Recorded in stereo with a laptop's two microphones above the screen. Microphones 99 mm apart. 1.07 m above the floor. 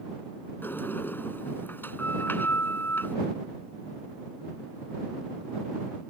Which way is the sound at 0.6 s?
20° left (ahead or behind).